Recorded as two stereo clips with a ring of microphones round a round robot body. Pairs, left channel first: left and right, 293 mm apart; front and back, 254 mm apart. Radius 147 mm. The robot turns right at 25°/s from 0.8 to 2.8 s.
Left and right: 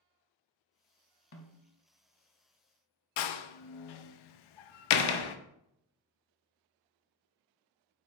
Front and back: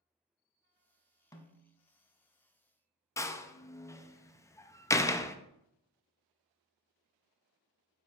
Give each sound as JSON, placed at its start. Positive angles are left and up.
{"t": 1.3, "sound": "a snare drum", "azimuth_deg": 70, "distance_m": 1.0}
{"t": 3.2, "sound": "a door slam", "azimuth_deg": 80, "distance_m": 0.5}